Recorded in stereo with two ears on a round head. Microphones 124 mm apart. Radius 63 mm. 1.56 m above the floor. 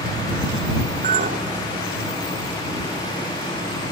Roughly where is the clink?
Right.